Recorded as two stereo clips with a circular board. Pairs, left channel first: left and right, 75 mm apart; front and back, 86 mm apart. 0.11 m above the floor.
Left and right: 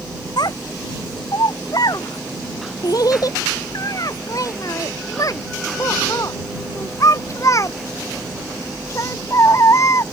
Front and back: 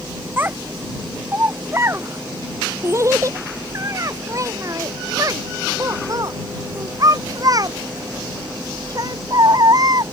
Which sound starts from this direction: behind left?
A child speaking, at 0.4 s.